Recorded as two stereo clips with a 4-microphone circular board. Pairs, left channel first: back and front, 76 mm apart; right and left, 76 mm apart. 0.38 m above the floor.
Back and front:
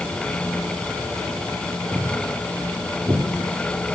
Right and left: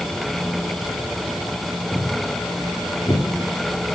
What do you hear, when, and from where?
1.9 s footsteps: 35° right, 1.9 m; by 4.0 s 45° right, 3 m